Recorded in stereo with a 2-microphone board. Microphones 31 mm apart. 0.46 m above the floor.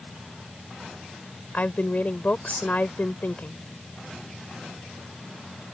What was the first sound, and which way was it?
A woman speaking, 55° left (ahead or behind).